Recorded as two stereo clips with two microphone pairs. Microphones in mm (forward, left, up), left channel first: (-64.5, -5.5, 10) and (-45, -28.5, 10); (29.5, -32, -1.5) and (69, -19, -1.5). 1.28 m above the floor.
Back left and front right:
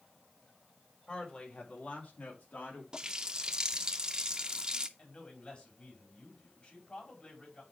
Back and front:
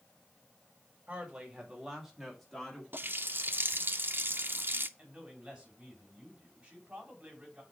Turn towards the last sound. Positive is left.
turn(degrees=85)